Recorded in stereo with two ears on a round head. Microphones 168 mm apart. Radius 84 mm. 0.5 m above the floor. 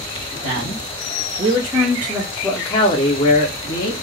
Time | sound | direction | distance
0.4 | a man speaking | 45° right (ahead or behind) | 1.4 m